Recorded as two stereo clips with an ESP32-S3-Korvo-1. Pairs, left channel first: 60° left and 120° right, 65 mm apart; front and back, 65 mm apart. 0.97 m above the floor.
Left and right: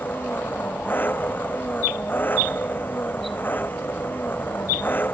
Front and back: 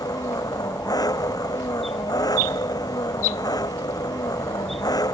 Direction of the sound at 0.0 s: Straight ahead.